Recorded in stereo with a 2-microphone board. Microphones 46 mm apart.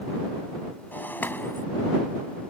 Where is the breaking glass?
50° left (ahead or behind).